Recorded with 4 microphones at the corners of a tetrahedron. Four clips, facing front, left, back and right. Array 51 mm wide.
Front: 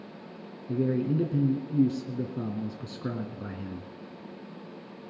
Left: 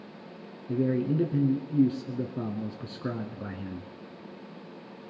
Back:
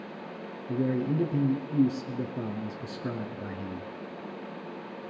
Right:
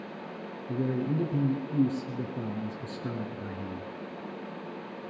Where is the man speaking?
90° left, 1.1 m.